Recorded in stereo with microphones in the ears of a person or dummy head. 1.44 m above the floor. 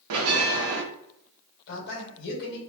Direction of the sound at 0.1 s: 75° right (ahead or behind).